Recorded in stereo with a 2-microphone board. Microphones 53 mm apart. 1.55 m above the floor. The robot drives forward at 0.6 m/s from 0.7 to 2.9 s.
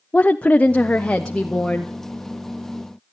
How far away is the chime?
No chime in this recording.